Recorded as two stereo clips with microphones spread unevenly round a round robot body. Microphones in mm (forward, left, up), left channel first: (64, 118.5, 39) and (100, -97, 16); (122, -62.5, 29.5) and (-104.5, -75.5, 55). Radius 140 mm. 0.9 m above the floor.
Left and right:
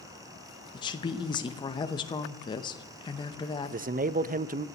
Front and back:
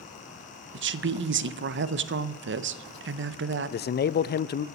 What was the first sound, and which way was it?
A woman speaking, 170° left.